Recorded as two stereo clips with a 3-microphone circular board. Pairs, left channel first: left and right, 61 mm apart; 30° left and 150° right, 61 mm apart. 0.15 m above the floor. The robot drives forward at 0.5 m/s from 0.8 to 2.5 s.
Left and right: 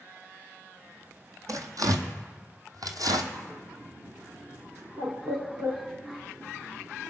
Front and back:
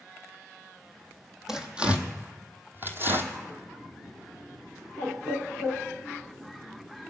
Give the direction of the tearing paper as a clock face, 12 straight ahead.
2 o'clock.